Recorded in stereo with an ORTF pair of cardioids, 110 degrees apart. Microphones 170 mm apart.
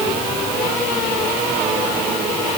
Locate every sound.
Only background noise.